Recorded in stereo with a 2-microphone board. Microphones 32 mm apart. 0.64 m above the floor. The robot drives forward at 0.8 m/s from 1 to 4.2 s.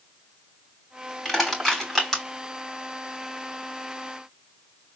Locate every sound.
1.2 s crushing: 10° left (ahead or behind), 3.5 m